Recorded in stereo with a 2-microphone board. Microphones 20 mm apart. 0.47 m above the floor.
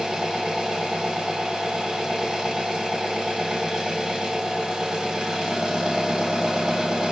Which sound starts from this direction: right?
An engine running, at 0.0 s.